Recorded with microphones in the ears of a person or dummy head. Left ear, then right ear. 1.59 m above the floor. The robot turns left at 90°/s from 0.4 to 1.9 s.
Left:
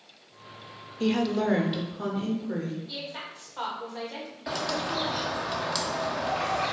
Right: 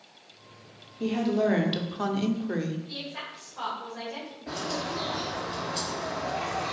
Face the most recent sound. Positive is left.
turn(degrees=45)  # may be behind; listen again after turning